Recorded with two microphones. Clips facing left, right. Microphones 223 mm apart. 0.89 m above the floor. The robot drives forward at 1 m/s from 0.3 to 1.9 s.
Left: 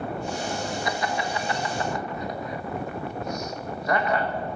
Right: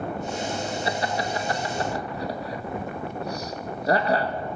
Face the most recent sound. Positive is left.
turn(degrees=-35)  # may be behind; listen again after turning